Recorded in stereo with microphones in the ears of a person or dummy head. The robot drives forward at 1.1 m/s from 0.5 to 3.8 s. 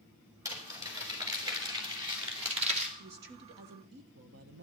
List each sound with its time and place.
0.5 s crumpling: 20° right (ahead or behind), 4.5 m; by 2.9 s 40° right (ahead or behind), 2.5 m
3.0 s a woman speaking: 50° right (ahead or behind), 1.4 m; by 4.6 s 75° right (ahead or behind), 1.2 m